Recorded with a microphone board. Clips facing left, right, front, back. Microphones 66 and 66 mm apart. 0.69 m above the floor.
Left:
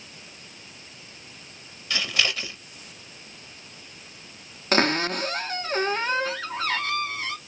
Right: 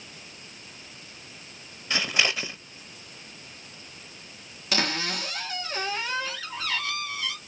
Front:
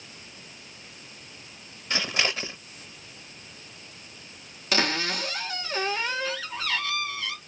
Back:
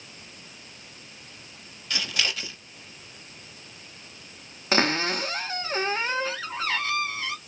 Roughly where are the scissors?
Ahead right.